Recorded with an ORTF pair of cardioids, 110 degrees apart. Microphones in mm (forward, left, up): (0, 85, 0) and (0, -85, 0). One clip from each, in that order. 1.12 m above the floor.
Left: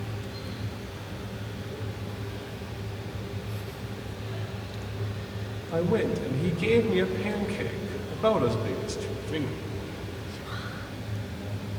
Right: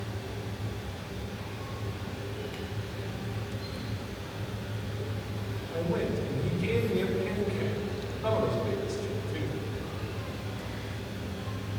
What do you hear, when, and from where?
5.7 s a man speaking: 60° left, 1.5 m